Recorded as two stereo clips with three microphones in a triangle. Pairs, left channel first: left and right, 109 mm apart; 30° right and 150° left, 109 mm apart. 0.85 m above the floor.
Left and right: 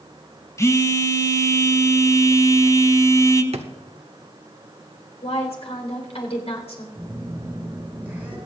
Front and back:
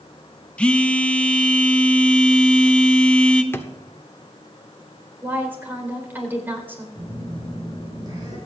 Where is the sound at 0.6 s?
45° left, 0.9 m.